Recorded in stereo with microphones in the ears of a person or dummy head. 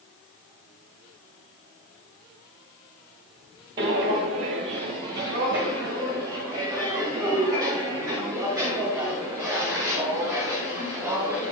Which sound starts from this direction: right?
Footsteps, at 3.8 s.